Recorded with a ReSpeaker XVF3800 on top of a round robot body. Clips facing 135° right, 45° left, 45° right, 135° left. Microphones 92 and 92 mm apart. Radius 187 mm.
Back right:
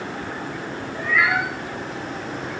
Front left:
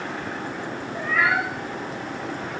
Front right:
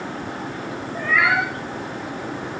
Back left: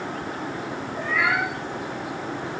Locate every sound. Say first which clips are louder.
0.9 s a cat meowing: back right 1 dB, front right 4 dB; 10° right, 4 m